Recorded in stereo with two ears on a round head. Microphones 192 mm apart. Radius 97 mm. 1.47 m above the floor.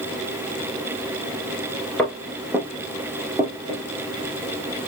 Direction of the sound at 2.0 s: 5° left (ahead or behind).